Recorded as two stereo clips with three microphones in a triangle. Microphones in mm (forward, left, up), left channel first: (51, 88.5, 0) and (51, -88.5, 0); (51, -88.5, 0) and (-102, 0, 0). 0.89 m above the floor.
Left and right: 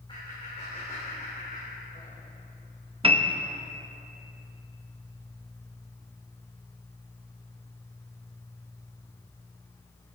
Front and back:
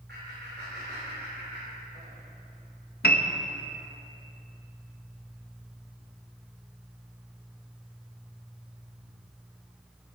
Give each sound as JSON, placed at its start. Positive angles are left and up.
{"t": 0.1, "sound": "laughter", "azimuth_deg": 150, "distance_m": 3.5}
{"t": 3.0, "sound": "a piano", "azimuth_deg": -35, "distance_m": 0.9}